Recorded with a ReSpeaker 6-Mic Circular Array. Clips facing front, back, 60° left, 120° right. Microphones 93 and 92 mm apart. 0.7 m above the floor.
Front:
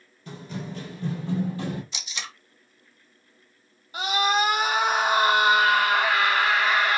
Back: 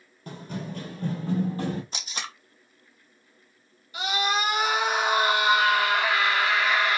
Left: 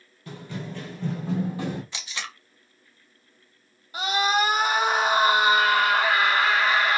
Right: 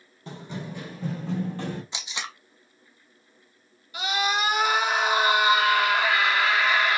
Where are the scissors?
No scissors in this recording.